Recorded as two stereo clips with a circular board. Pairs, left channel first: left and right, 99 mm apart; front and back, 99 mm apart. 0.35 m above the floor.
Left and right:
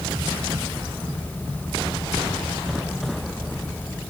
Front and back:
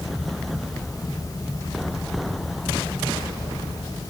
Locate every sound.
Only background noise.